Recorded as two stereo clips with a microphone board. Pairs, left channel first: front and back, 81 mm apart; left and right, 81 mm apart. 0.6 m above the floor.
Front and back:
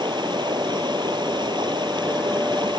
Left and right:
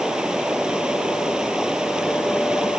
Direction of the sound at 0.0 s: 170° right.